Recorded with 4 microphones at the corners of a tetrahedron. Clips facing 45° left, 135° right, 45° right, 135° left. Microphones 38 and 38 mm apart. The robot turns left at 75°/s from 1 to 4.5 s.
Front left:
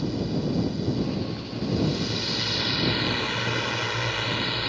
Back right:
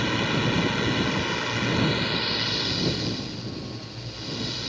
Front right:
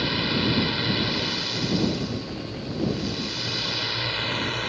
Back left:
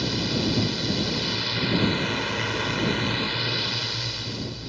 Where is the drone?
110° right; by 4.7 s 10° right.